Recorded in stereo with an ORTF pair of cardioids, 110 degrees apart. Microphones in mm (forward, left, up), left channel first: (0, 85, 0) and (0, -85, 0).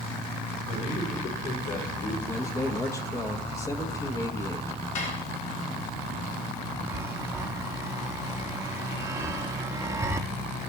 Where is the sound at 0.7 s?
45° left, 4 m; by 2.2 s 65° left, 3.5 m.